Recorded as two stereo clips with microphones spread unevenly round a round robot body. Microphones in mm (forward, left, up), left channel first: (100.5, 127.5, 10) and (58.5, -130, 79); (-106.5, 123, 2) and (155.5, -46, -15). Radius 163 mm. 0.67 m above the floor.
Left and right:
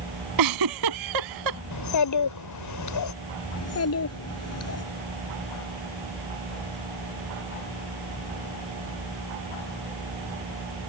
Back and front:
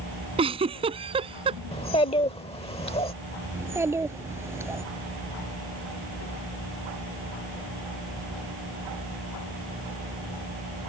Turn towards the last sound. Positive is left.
turn(degrees=50)